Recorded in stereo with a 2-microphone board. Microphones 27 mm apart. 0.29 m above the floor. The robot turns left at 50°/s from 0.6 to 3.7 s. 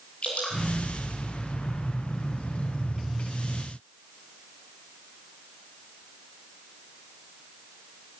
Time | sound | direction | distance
0.2 | dripping | 50° left (ahead or behind) | 9 m